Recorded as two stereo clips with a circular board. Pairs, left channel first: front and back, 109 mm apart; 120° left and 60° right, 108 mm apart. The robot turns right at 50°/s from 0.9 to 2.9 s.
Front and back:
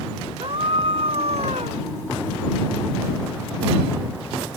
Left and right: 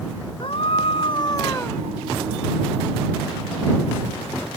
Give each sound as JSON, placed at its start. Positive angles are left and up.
{"t": 0.4, "sound": "a scream", "azimuth_deg": 150}